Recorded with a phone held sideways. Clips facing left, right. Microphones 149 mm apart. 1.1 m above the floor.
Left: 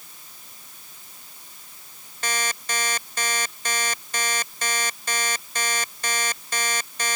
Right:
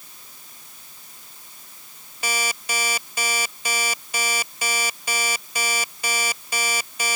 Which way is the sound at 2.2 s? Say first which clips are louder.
Right 1 dB; 10° right (ahead or behind).